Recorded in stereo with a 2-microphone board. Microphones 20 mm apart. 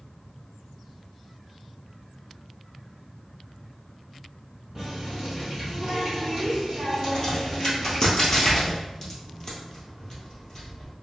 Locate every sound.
4.8 s a running tap: 10° right (ahead or behind), 1.8 m
7.0 s a crack: 30° left (ahead or behind), 1.5 m